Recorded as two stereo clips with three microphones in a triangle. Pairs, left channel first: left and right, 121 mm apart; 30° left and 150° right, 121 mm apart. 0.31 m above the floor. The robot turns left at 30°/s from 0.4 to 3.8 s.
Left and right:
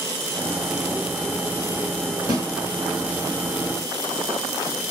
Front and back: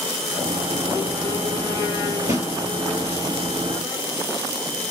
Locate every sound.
2.3 s a snare drum: 145° right, 2 m; by 2.5 s 150° right, 2 m